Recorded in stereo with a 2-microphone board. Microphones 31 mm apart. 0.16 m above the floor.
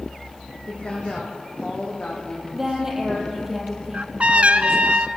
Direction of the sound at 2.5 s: 10° right (ahead or behind).